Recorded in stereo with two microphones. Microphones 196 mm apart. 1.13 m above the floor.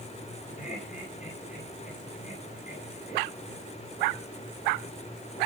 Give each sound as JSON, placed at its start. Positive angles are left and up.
{"t": 0.6, "sound": "laughter", "side_deg": 40, "distance_m": 8.0}